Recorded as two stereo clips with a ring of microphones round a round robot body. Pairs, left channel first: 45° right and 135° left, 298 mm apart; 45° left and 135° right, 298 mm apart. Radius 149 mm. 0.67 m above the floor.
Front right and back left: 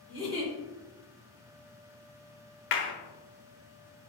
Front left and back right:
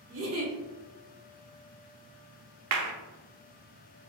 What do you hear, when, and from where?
0.1 s a giggle: 155° right, 1.6 m
2.7 s a clap: 95° right, 0.6 m